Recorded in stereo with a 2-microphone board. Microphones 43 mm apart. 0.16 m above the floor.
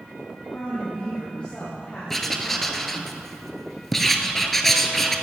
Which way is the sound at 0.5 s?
20° left (ahead or behind).